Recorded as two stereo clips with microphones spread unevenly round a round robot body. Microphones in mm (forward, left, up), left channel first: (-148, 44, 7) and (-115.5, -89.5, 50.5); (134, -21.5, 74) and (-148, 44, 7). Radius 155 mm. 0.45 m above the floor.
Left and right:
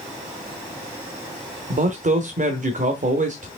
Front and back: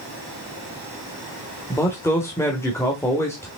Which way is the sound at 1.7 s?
100° right.